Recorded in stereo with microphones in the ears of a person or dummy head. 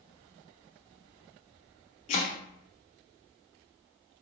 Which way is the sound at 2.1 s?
40° left (ahead or behind).